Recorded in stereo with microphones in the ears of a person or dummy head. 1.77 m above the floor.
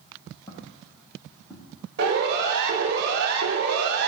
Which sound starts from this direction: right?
A siren, at 2.0 s.